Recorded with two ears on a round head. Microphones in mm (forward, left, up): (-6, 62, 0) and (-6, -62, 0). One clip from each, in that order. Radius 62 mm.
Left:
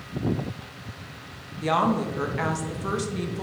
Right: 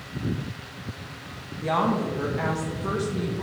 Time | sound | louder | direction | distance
1.6 | a woman speaking | left 1 dB | 60° left (ahead or behind) | 1.2 m